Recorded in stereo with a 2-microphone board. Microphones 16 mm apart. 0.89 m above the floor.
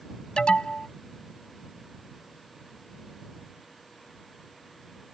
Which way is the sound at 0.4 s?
80° left.